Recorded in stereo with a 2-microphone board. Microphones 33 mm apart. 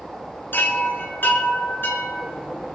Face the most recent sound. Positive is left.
turn(degrees=80)